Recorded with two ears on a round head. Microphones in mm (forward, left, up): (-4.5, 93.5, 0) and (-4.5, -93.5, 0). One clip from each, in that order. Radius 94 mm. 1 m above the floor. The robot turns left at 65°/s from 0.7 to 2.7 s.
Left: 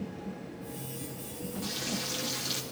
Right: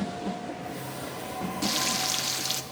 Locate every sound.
1.6 s frying: 95° right, 1.0 m; by 2.6 s 160° right, 1.0 m